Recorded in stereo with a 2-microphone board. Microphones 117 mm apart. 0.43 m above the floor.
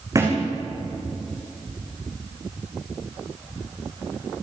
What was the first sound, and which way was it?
A thud, 30° right (ahead or behind).